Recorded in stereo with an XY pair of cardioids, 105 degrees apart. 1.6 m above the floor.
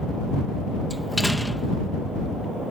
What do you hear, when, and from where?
0.9 s a door slam: 5° left